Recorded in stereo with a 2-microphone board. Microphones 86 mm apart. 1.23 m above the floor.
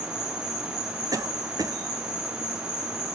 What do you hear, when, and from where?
0.0 s an insect: 5° right (ahead or behind), 1.4 m
1.1 s a cough: 45° right (ahead or behind), 0.9 m